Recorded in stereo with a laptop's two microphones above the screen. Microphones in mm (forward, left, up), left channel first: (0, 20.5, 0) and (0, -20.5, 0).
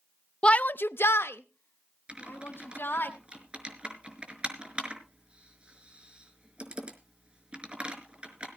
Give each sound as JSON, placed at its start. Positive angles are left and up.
{"t": 0.4, "sound": "a shout", "side_deg": 25, "distance_m": 0.5}
{"t": 2.1, "sound": "typing on a keyboard", "side_deg": -25, "distance_m": 4.0}